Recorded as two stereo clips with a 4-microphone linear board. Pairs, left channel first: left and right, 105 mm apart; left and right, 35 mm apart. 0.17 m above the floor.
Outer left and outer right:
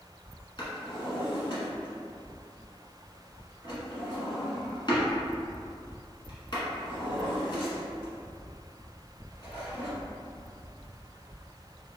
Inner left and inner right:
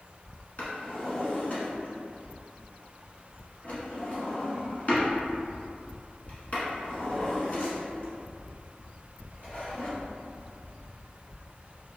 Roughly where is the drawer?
Left.